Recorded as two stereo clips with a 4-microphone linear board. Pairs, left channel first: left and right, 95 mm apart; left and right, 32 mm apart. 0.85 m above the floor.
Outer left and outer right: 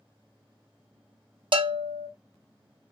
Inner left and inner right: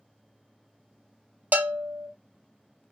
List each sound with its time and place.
1.5 s a bell: 60° right (ahead or behind), 0.5 m